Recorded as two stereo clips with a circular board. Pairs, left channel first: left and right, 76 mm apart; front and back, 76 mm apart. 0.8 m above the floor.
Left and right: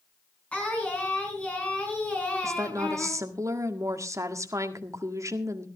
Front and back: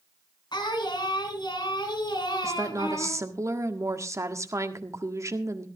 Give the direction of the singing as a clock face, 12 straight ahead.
11 o'clock.